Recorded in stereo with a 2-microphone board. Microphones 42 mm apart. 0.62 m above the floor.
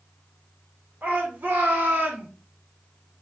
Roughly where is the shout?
Right.